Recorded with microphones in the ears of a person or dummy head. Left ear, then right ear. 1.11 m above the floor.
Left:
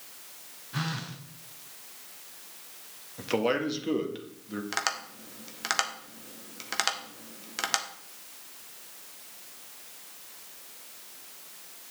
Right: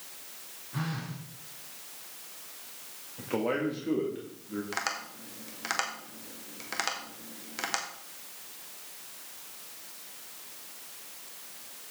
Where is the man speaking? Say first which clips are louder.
Left 3 dB; 75° left (ahead or behind), 1.5 m.